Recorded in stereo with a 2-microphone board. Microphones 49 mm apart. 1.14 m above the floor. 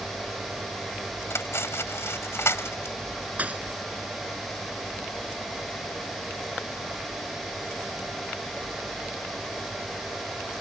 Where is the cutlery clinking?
60° left (ahead or behind).